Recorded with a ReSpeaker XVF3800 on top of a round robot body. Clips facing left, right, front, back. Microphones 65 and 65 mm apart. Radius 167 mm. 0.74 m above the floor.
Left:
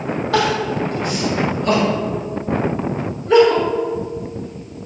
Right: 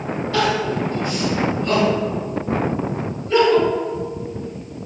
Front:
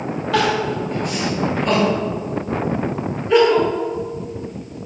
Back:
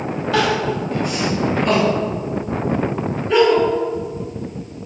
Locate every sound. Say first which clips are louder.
0.3 s crying: left 1 dB, even; 90° left, 1.8 m